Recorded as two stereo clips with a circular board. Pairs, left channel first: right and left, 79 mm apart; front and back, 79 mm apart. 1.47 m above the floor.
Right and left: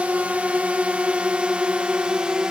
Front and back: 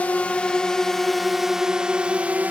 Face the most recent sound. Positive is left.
turn(degrees=155)